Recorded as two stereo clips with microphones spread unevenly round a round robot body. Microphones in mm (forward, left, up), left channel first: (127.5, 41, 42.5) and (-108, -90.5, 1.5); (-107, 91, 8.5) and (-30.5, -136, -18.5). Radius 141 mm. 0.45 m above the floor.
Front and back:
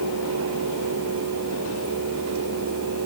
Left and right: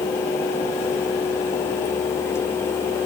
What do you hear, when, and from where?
Only background noise.